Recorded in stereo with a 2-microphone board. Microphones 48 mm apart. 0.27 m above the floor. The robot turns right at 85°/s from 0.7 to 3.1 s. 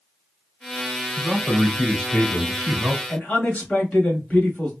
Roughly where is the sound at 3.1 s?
Left.